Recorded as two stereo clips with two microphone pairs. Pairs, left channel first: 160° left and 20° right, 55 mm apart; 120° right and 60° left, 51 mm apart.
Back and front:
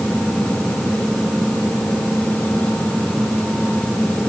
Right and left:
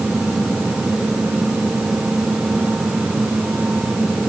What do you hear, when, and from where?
Only background noise.